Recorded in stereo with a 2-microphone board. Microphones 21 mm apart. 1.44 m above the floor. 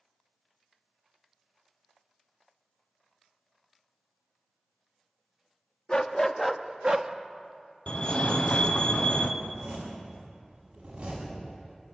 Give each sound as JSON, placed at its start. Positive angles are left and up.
{"t": 5.9, "sound": "a dog barking", "side_deg": 40, "distance_m": 1.1}
{"t": 7.9, "sound": "a fire alarm", "side_deg": 50, "distance_m": 1.4}
{"t": 9.4, "sound": "a zipper", "side_deg": -80, "distance_m": 8.0}